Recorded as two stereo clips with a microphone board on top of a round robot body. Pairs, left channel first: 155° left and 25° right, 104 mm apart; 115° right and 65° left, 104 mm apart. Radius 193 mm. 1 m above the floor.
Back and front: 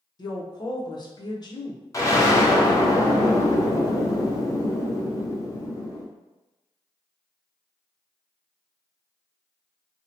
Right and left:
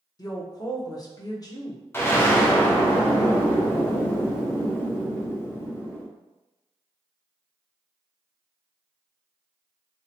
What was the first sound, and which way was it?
A woman speaking, 160° right.